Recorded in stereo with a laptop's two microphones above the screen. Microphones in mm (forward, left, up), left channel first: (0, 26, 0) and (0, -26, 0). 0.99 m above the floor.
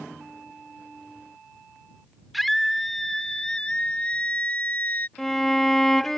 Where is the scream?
Centre (ahead or behind); by 5.1 s 40° left (ahead or behind).